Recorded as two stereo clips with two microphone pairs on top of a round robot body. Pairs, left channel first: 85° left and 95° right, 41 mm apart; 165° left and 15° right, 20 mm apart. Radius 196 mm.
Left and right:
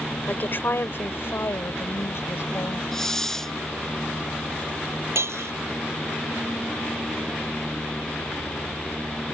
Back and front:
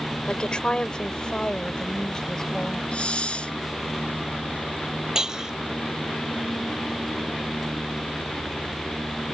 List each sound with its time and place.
0.3 s a woman speaking: 130° left; by 2.8 s 105° left
2.9 s a hiss: 165° left
5.2 s breaking glass: 75° right